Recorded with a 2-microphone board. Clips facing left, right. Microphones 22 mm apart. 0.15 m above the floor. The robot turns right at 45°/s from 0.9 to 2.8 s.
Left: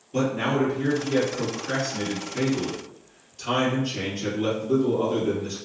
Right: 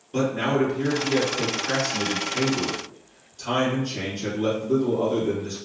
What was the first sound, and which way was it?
A man speaking, 90° right.